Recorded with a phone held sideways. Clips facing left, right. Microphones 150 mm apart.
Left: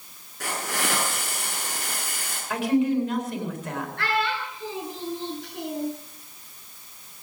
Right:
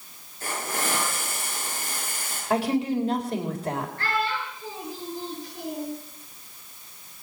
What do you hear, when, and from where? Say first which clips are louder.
0.4 s a hiss: left 1 dB; 90° left, 6.5 m
2.5 s a woman speaking: left 2 dB; 35° right (ahead or behind), 4 m
4.0 s a child speaking: left 1 dB; 85° left, 6.5 m